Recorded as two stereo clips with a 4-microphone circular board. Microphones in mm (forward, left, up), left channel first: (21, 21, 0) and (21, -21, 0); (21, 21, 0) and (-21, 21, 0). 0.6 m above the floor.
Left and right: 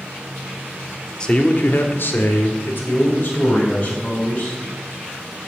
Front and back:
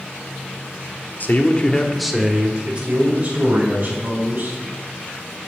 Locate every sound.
1.2 s a man speaking: 25° left, 1.4 m; by 4.6 s 135° left, 4.5 m